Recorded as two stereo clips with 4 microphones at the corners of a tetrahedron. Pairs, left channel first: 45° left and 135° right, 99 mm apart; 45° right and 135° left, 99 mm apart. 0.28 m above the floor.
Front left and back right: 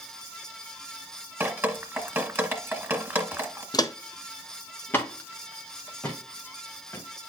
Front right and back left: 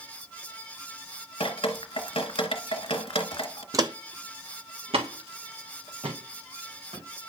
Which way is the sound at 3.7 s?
80° left.